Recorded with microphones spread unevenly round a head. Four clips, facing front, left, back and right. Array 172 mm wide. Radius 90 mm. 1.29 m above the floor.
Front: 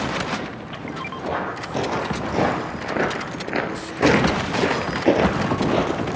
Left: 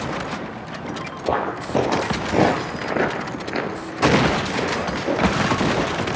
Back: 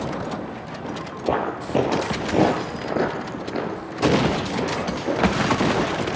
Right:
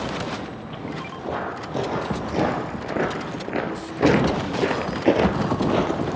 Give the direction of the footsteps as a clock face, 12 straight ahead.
7 o'clock.